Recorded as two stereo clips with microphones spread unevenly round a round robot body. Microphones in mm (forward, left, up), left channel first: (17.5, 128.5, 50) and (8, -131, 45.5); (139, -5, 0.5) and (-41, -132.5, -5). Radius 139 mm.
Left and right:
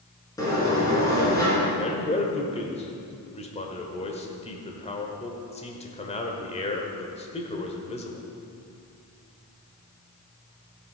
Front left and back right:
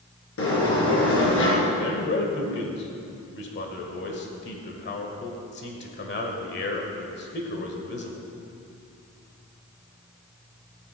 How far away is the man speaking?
About 1.6 m.